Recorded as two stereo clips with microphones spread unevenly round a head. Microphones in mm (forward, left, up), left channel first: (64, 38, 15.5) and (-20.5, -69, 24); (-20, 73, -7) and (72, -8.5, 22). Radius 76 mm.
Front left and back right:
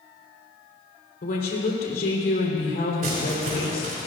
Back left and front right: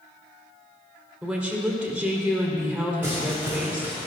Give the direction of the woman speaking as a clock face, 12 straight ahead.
11 o'clock.